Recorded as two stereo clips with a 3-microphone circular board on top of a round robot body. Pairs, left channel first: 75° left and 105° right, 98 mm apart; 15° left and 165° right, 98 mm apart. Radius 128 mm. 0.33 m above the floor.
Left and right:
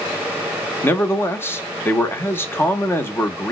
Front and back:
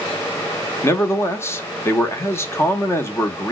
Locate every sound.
0.8 s a man speaking: 40° left, 0.9 m